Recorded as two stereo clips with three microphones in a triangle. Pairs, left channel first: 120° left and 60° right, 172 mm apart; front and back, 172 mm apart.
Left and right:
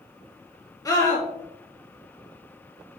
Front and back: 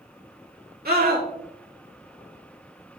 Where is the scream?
170° right, 3 m.